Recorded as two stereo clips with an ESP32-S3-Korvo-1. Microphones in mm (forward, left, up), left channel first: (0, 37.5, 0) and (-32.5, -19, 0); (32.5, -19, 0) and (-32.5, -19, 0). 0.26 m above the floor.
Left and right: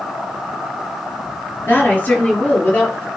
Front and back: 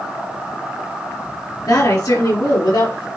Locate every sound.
1.6 s a woman speaking: straight ahead, 4 m; by 3.1 s 10° right, 5 m